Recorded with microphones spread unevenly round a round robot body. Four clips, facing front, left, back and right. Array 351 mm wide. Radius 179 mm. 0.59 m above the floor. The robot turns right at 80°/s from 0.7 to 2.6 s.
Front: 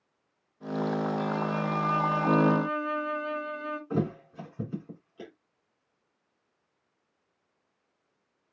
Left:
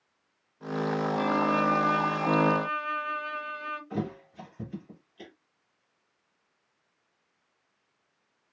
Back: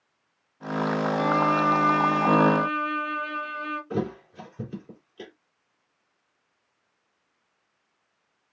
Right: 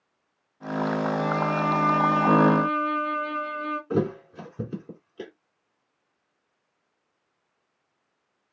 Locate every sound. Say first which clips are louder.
1.2 s a violin: even, back 7 dB; straight behind, 2.0 m; by 3.8 s 65° right, 2.0 m
3.9 s a thud: right 11 dB, front 1 dB; 80° right, 2.5 m